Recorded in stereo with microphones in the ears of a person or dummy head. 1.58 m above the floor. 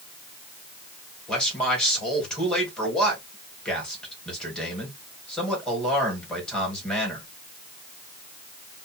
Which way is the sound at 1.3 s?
5° left (ahead or behind).